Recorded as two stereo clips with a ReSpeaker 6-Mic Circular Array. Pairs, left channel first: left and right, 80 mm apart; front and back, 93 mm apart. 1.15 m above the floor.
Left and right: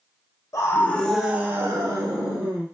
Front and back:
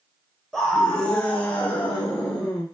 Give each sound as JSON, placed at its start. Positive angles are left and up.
{"t": 0.5, "sound": "a scream", "azimuth_deg": 85, "distance_m": 0.7}